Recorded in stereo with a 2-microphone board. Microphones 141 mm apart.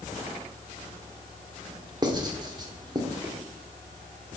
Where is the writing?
30° right (ahead or behind), 1.5 m.